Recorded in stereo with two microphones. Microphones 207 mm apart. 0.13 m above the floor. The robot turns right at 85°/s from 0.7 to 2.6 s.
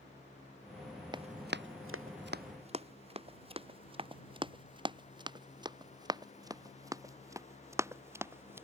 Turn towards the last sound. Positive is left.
turn(degrees=-10)  # may be behind; listen again after turning